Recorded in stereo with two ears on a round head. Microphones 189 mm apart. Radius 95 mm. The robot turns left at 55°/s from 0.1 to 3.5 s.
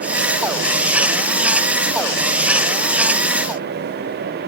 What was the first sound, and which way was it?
Only background noise.